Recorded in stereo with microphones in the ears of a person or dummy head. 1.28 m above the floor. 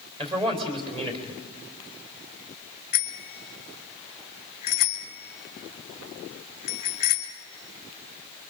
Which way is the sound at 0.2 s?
35° right (ahead or behind).